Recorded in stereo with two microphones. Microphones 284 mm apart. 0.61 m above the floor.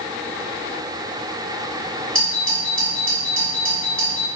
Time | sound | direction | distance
2.1 | a doorbell | 45° right (ahead or behind) | 1.7 m